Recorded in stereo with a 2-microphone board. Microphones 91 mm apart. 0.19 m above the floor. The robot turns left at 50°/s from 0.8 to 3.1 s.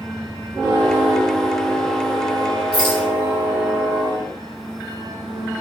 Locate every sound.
2.7 s a rattle: 75° left (ahead or behind), 6 m; by 3.1 s 65° left (ahead or behind), 6 m